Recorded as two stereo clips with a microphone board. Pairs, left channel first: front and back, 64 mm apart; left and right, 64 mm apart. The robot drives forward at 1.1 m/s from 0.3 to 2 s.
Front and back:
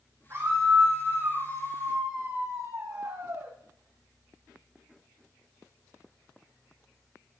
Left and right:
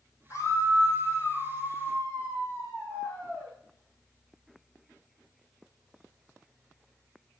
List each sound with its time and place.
0.3 s a scream: 130° left, 5.5 m; by 3.5 s 140° left, 6.5 m